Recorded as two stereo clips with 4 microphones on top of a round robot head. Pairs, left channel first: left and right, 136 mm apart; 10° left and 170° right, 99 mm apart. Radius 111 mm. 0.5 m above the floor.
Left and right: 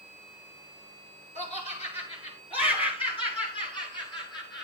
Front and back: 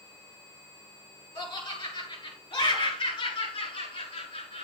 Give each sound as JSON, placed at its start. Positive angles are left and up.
{"t": 1.4, "sound": "laughter", "azimuth_deg": 50, "distance_m": 7.5}